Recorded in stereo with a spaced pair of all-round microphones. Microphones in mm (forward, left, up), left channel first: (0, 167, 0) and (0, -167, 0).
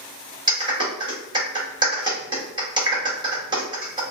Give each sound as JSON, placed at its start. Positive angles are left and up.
{"t": 0.5, "sound": "a clap", "side_deg": -15, "distance_m": 1.1}